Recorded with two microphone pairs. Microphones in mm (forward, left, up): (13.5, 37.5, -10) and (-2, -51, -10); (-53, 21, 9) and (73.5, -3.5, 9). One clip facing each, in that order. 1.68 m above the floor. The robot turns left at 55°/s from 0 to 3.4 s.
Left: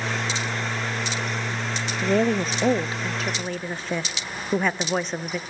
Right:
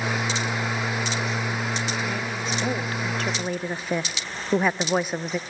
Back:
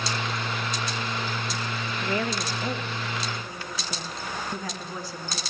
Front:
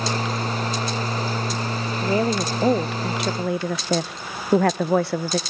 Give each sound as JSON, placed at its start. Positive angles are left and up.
{"t": 2.0, "sound": "a woman speaking", "azimuth_deg": 55, "distance_m": 0.5}